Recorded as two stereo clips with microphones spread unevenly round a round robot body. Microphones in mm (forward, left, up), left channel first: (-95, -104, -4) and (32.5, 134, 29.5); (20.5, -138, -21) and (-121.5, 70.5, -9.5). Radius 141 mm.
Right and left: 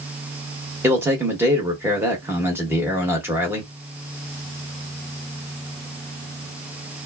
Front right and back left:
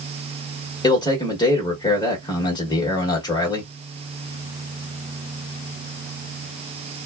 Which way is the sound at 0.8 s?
25° right.